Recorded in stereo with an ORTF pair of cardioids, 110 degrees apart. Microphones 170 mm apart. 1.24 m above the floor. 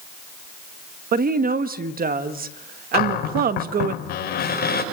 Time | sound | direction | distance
1.1 | a woman speaking | 60° right | 1.4 m
2.9 | a cupboard door | 65° left | 5 m